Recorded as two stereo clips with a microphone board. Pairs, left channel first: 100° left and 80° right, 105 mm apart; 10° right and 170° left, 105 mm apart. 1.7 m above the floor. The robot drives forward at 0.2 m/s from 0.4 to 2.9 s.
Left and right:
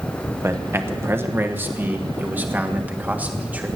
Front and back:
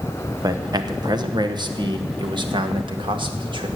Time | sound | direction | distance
0.4 | a man speaking | 140° right | 1.2 m